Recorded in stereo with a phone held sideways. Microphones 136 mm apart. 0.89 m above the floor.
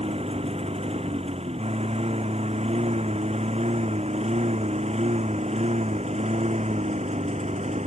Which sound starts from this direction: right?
A lawn mower, at 0.0 s.